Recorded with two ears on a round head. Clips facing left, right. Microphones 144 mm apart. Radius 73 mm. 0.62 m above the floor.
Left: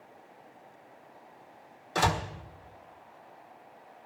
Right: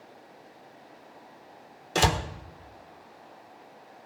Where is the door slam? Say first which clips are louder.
Right 2 dB; 30° right (ahead or behind), 1.3 m.